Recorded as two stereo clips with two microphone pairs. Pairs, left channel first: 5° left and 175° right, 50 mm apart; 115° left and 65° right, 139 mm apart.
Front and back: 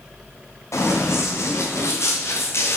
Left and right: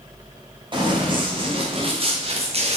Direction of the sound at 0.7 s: 5° right.